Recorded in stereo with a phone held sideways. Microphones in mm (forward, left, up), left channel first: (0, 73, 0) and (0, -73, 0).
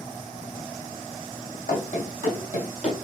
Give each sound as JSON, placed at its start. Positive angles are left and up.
{"t": 1.7, "sound": "running footsteps", "side_deg": 70, "distance_m": 3.0}